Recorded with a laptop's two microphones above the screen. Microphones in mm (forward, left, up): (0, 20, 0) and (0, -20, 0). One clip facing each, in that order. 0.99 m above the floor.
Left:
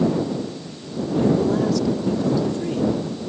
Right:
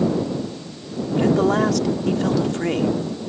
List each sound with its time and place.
1.2 s a man speaking: 85° right